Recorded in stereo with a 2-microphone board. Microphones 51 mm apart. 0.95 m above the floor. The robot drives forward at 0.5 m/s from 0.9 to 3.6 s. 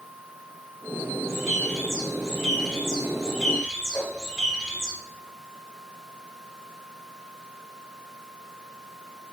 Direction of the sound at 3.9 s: 35° left (ahead or behind).